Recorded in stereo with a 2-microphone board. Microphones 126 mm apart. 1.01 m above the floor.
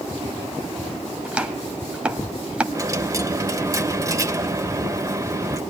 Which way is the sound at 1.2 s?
10° right (ahead or behind).